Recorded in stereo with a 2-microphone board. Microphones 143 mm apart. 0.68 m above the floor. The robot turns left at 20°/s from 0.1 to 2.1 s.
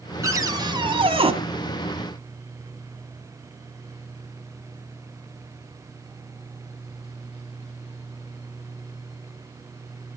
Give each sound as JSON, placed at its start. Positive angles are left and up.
{"t": 0.2, "sound": "a cupboard door", "side_deg": -20, "distance_m": 1.7}